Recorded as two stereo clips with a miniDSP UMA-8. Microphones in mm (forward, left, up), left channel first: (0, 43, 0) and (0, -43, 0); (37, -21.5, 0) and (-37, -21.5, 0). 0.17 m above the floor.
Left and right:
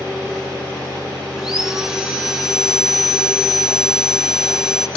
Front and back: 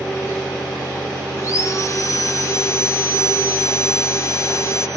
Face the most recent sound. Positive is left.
turn(degrees=-10)